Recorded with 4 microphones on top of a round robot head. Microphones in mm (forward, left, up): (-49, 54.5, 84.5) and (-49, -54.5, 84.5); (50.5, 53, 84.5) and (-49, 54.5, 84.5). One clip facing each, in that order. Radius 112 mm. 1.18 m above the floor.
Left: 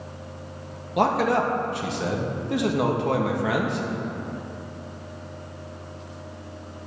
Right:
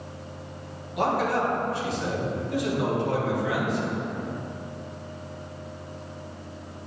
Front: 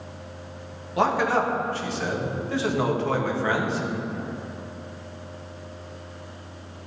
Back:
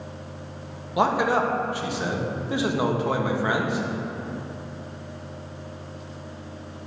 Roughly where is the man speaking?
Left.